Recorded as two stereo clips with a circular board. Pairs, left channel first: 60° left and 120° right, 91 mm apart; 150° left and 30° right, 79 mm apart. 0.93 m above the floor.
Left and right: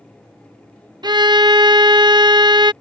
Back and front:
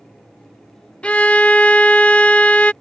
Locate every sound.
1.0 s a violin: 135° right